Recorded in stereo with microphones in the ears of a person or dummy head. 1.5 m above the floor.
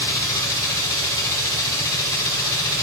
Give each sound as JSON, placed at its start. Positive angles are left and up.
{"t": 0.0, "sound": "a machine running", "side_deg": 25, "distance_m": 2.5}